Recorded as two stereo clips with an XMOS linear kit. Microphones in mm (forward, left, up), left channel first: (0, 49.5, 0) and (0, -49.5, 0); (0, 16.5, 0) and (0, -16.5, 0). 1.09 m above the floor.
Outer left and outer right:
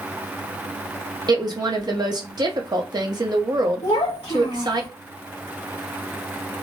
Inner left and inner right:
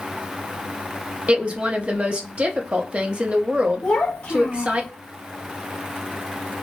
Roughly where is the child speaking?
Left.